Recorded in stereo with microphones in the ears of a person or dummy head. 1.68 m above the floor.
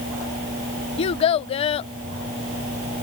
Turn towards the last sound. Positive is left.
turn(degrees=30)  # may be behind; listen again after turning